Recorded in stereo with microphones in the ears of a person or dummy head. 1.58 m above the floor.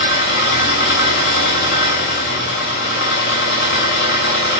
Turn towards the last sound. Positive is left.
turn(degrees=40)  # may be behind; listen again after turning